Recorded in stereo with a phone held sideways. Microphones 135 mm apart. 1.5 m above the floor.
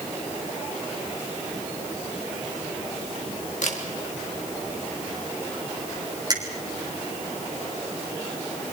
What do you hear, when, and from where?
3.6 s a camera shutter: 65° left (ahead or behind), 3 m
6.3 s a finger snap: 30° right (ahead or behind), 3.5 m